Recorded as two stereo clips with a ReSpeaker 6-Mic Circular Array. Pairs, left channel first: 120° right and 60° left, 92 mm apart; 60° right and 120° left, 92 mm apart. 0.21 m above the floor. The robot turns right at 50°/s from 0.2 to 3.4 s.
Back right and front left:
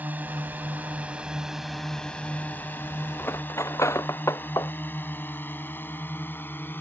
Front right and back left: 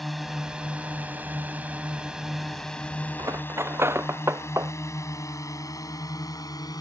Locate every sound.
0.0 s a drone: 30° left; by 6.8 s 60° right
3.2 s cutlery clinking: 170° left; by 4.7 s straight behind